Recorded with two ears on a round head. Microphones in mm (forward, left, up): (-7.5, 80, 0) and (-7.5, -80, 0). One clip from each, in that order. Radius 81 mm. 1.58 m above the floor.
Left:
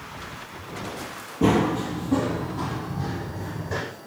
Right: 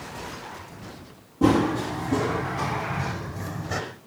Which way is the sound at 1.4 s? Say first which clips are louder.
Even; 10° left (ahead or behind).